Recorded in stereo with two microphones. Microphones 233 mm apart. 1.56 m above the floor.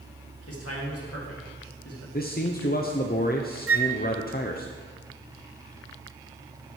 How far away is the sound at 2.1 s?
About 0.6 m.